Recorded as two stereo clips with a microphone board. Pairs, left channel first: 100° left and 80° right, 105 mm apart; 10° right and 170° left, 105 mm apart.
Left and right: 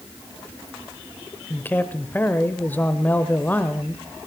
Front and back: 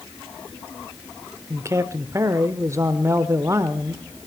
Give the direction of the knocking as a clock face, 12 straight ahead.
I don't hear knocking.